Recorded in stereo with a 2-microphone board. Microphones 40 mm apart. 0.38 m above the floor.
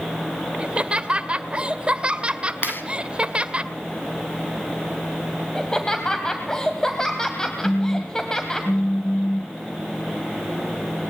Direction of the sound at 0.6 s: 30° right (ahead or behind).